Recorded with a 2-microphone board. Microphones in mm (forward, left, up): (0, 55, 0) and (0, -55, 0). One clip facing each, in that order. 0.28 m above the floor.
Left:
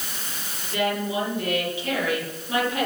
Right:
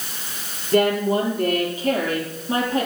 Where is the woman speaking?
50° right (ahead or behind), 7.5 m; by 2.9 s 30° right (ahead or behind), 8.5 m.